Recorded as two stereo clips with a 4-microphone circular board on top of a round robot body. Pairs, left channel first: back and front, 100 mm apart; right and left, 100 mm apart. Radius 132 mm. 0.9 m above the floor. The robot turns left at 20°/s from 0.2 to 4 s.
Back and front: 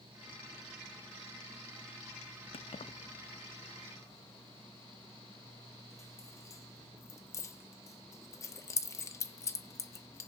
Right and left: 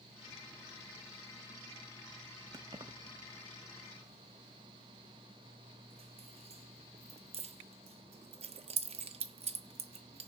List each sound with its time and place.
2.5 s keys jangling: 145° left, 0.6 m; by 10.3 s 115° left, 0.6 m